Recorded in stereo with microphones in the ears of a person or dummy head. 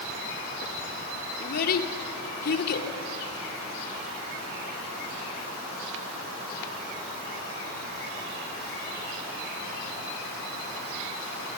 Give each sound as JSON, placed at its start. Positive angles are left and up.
{"t": 1.4, "sound": "a child speaking", "side_deg": 60, "distance_m": 2.0}